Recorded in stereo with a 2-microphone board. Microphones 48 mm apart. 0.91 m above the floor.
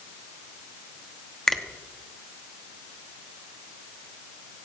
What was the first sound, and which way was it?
A finger snap, 10° left (ahead or behind).